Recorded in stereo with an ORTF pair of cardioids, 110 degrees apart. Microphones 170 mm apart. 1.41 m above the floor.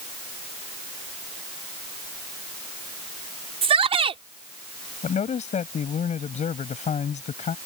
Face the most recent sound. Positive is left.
turn(degrees=45)